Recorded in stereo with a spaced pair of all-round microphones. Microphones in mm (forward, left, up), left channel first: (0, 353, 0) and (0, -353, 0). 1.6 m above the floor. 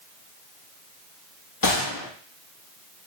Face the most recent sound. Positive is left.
turn(degrees=30)  # may be behind; listen again after turning